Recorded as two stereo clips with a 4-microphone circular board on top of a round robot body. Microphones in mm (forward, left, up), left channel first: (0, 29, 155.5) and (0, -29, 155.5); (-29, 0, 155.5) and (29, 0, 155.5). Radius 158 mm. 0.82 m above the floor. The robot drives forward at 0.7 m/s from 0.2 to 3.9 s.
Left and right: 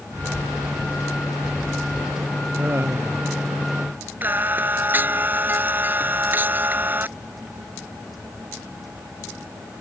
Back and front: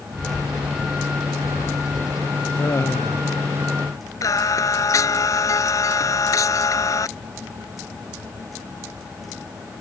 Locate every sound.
0.1 s a bird: 75° left; by 2.6 s 85° left
2.6 s laughter: 140° right
4.2 s singing: 150° right